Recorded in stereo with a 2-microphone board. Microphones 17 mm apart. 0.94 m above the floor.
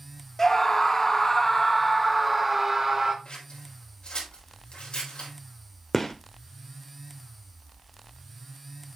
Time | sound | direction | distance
0.4 | a scream | 20° left (ahead or behind) | 1.4 m
3.2 | scissors | 70° left (ahead or behind) | 4 m
5.9 | a gunshot | 20° left (ahead or behind) | 1.1 m